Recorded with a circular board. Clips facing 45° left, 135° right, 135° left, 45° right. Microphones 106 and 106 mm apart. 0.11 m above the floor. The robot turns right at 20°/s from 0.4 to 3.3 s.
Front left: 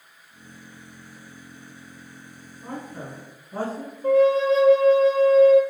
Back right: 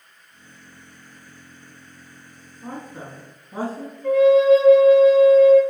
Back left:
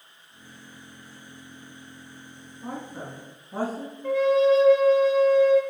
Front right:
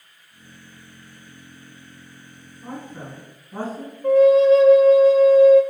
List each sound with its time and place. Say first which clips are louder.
2.6 s a woman speaking: even, even; straight behind, 1.1 m; by 3.9 s 170° right, 1.1 m
4.0 s a flute: back right 4 dB, front right 7 dB; 5° right, 0.7 m